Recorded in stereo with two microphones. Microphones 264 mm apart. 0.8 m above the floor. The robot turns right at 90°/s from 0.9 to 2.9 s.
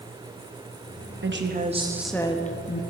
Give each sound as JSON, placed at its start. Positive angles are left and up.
{"t": 1.2, "sound": "a woman speaking", "azimuth_deg": -75, "distance_m": 0.9}